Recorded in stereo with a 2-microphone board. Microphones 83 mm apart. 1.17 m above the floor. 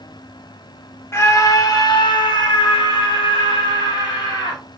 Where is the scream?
35° left (ahead or behind), 2 m; by 4.6 s 80° left, 4.5 m.